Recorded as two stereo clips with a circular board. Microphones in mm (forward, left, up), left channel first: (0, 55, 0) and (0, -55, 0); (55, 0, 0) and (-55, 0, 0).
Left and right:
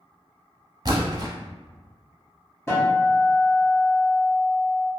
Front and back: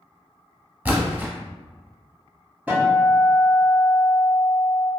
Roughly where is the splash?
Behind right.